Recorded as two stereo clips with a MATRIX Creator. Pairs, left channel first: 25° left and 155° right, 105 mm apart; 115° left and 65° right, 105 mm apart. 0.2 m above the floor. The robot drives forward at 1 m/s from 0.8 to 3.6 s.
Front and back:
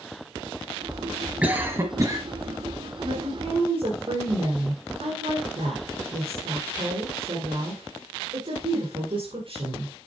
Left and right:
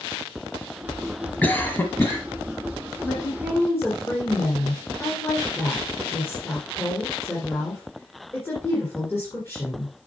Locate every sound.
1.4 s a cough: 150° left, 1.1 m; by 2.2 s 170° left, 1.6 m
3.0 s a woman speaking: straight behind, 1.9 m